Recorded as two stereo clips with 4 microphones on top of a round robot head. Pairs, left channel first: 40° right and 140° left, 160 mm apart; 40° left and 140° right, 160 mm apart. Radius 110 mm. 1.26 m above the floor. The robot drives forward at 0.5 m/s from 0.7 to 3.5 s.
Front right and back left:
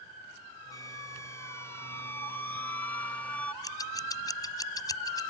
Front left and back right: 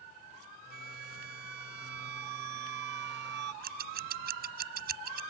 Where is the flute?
110° right; by 3.5 s 120° right.